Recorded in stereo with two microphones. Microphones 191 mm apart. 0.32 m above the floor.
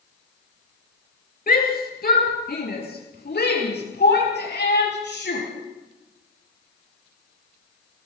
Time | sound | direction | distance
1.5 | a shout | 50° left (ahead or behind) | 7.5 m